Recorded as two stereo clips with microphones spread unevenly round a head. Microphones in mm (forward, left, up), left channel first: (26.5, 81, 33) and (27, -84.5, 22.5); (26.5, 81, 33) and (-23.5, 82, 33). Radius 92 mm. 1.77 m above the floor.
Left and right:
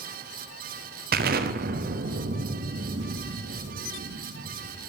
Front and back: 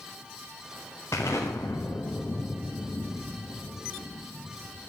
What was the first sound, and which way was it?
An explosion, 65° right.